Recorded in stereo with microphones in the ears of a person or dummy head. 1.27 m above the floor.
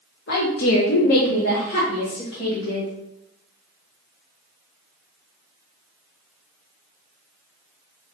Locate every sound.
0.3 s a woman speaking: 55° left (ahead or behind), 0.8 m; by 2.9 s 25° left (ahead or behind), 2 m